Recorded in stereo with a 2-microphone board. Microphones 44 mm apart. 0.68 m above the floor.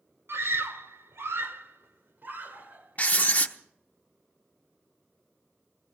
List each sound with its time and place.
0.3 s a scream: 75° right (ahead or behind), 1.9 m; by 3.5 s 35° right (ahead or behind), 2.5 m
3.0 s writing: 35° left (ahead or behind), 0.9 m